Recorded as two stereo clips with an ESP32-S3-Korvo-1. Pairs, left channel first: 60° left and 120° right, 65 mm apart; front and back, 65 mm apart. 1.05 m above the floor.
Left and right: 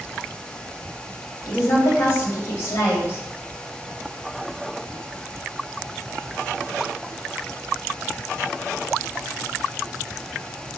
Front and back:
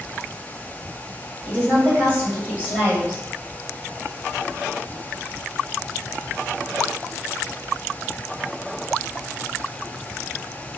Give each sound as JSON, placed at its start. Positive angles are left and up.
{"t": 1.4, "sound": "a woman speaking", "azimuth_deg": 115, "distance_m": 2.5}